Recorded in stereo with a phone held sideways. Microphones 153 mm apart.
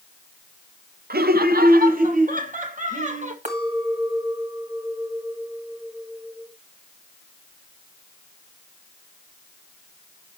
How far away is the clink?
About 2 m.